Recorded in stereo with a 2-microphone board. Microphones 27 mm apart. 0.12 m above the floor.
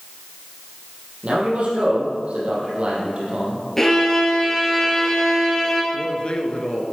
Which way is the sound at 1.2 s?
45° right (ahead or behind).